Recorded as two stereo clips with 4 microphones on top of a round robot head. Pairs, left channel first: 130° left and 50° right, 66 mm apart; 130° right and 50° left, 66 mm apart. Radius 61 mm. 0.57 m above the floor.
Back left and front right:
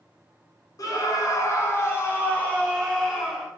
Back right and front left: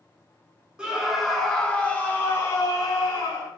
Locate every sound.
0.8 s a scream: 125° left, 1.9 m; by 3.5 s 140° right, 2 m